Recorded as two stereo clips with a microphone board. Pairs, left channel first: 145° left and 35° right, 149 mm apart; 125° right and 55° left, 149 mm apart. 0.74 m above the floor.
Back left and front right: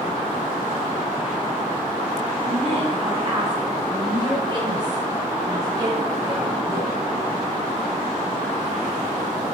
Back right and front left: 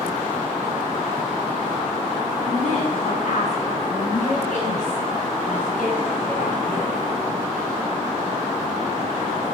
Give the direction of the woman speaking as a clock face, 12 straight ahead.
3 o'clock.